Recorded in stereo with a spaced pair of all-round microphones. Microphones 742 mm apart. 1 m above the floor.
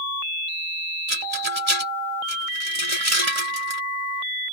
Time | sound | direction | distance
1.1 | a rattle | 40° right (ahead or behind) | ?